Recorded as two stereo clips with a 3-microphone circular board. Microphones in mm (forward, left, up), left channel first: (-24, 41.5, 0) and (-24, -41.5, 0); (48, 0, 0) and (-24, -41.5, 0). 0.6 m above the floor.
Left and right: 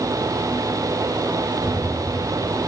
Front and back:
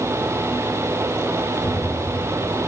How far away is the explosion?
About 3 m.